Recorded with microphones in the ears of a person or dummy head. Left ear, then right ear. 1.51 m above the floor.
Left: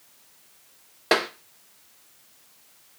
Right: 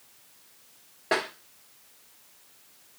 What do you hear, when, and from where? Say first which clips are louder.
1.1 s tapping: left 5 dB; 35° left (ahead or behind), 0.8 m